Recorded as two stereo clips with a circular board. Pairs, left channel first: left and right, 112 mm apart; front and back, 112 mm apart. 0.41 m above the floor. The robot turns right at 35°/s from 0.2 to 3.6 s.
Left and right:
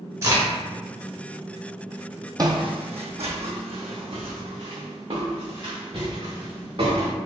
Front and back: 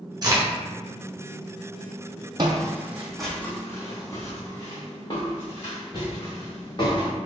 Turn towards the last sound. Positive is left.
turn(degrees=-50)